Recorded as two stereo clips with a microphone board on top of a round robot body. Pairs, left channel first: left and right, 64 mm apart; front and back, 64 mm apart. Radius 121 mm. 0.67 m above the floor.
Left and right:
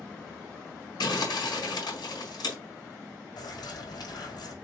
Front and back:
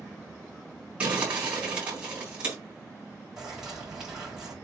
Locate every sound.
1.0 s crumpling: 105° left, 3.5 m
3.4 s a bird: 95° left, 4 m